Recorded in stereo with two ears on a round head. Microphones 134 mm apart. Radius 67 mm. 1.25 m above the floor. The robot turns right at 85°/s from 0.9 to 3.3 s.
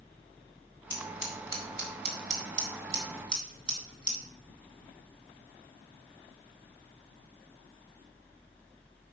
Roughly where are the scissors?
Centre.